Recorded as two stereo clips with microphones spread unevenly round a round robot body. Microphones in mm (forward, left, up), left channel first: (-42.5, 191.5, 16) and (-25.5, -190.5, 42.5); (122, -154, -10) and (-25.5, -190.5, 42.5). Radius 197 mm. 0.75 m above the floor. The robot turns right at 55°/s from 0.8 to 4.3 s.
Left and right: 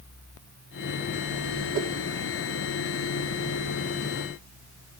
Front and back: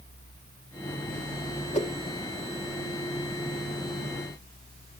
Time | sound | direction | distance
1.7 | a whoosh | 20° right | 1.2 m